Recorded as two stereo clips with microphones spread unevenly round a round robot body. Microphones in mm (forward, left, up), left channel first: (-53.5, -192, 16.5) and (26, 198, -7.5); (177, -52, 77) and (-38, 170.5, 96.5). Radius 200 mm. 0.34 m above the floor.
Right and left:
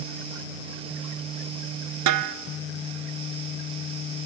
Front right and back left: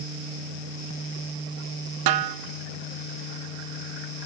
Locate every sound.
2.1 s a snare drum: 125° left, 1.2 m